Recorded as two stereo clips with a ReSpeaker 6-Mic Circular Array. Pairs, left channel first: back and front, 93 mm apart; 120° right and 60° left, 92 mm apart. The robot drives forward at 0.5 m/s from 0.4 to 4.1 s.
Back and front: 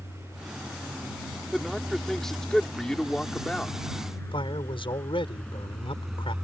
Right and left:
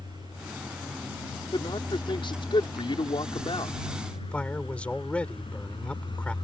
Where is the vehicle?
135° right; by 6.4 s 85° right.